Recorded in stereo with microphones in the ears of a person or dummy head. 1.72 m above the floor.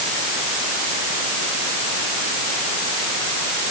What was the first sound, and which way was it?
Only background noise.